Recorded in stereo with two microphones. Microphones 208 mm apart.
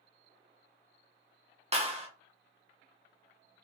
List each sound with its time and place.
1.7 s a clap: 30° right (ahead or behind), 1.3 m